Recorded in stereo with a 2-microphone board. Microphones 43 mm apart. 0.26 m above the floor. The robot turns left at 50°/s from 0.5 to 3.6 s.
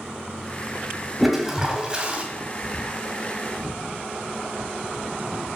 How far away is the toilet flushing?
About 1.8 m.